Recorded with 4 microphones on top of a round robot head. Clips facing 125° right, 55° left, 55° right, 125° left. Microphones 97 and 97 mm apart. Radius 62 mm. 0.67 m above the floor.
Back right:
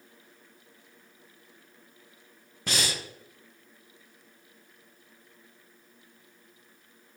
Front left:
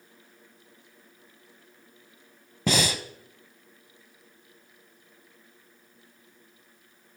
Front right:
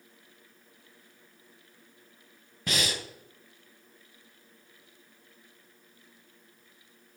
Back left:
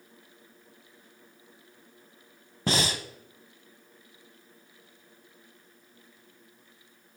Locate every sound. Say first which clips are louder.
2.7 s breathing: front left 7 dB, back left 4 dB; 65° left, 0.8 m